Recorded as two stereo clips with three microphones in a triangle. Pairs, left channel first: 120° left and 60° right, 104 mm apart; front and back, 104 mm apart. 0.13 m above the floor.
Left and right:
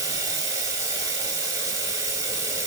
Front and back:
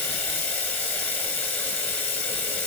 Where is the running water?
50° right, 1.4 m.